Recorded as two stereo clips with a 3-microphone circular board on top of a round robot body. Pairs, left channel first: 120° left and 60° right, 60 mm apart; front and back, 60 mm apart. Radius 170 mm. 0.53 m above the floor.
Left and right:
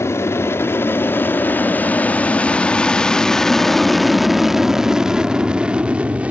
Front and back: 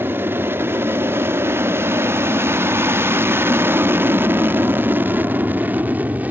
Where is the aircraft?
140° left; by 6.3 s 125° right.